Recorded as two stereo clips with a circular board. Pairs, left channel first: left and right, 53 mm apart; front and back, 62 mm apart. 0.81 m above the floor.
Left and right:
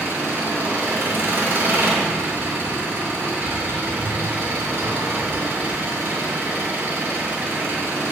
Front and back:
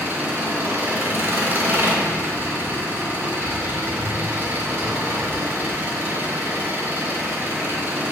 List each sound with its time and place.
0.0 s an engine running: 135° right, 2 m